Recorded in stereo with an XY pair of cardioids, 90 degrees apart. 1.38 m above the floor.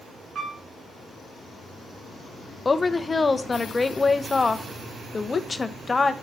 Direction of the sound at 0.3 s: 50° right.